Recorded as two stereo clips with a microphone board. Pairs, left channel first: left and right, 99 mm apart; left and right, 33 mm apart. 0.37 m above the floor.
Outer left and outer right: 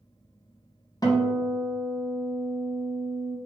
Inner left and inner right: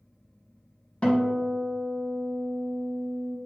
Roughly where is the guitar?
Left.